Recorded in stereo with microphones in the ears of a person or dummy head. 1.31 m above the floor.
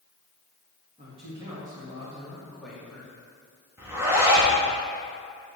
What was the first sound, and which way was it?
A man speaking, 30° right (ahead or behind).